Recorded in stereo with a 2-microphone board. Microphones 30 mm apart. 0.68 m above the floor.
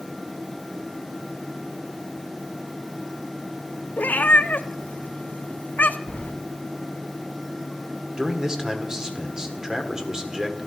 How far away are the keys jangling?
About 2.5 m.